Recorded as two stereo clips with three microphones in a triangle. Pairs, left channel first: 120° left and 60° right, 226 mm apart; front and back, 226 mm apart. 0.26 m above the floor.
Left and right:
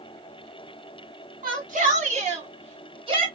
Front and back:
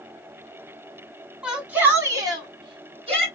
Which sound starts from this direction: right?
A shout, at 1.4 s.